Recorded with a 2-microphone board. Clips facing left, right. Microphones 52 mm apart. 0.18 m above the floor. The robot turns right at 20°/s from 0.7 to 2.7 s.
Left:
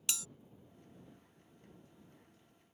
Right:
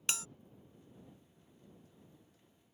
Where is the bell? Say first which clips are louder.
Right 3 dB; 40° right (ahead or behind).